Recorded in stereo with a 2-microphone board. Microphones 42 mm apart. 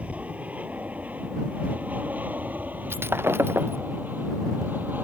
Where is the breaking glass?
65° right (ahead or behind).